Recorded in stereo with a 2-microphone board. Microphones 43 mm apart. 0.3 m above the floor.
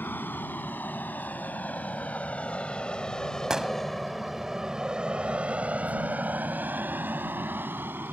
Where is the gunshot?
15° right (ahead or behind).